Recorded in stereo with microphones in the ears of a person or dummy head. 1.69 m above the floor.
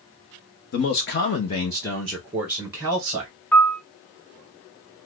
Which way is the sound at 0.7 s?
45° left (ahead or behind).